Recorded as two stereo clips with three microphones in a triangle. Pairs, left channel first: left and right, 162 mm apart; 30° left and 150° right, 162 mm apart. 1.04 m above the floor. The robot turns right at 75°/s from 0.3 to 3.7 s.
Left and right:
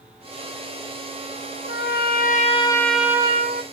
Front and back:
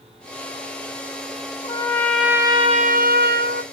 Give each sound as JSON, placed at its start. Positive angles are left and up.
{"t": 1.6, "sound": "a trumpet", "azimuth_deg": 80, "distance_m": 0.8}